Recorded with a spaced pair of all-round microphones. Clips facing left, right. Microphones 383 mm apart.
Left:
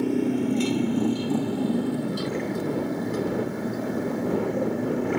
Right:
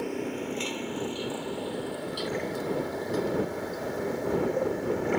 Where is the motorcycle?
50° left (ahead or behind); by 5.2 s 65° left (ahead or behind).